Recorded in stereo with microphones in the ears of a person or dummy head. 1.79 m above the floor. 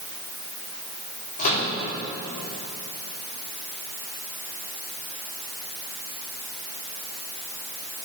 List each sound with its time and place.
1.4 s a microwave: 50° left (ahead or behind), 3.5 m